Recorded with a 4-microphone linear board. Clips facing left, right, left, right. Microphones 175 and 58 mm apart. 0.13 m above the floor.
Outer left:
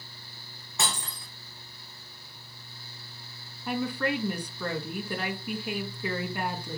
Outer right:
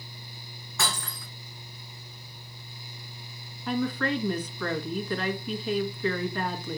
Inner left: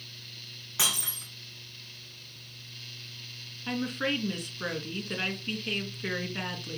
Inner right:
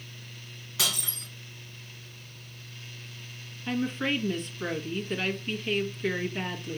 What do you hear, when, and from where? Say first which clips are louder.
0.8 s breaking glass: outer right 1 dB, even; 20° left (ahead or behind), 3 m
3.7 s a woman speaking: outer right 2 dB, inner right 2 dB; 10° left (ahead or behind), 1.9 m